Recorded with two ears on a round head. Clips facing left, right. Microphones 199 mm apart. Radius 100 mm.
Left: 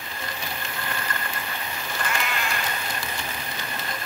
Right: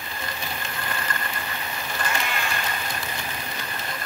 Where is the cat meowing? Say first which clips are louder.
Even; 25° right (ahead or behind), 3.5 m.